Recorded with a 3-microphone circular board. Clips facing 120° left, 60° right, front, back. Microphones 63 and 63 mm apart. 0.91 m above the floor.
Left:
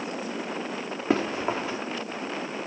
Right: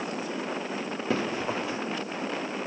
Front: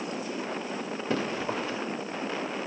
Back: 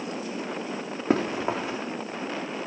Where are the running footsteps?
175° right, 3.5 m.